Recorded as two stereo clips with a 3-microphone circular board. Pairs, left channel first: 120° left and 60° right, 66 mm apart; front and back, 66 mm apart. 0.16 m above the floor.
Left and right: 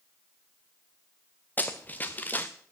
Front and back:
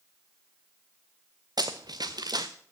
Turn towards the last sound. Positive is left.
turn(degrees=180)